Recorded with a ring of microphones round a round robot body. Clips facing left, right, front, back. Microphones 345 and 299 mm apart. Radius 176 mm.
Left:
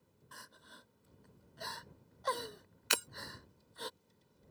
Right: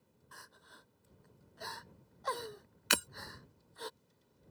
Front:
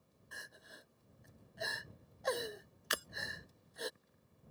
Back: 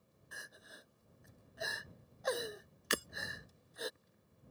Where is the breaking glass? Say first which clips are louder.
Right 3 dB, back 6 dB; 115° right.